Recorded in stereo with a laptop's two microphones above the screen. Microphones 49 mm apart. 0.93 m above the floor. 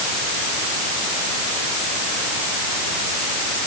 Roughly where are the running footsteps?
I don't hear running footsteps.